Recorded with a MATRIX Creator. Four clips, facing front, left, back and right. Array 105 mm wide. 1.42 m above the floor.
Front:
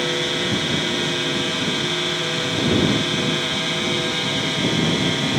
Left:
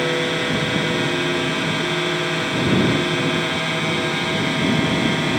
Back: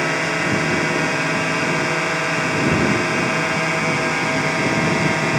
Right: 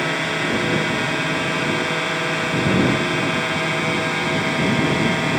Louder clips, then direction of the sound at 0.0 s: Left 2 dB, back 3 dB; 170° right.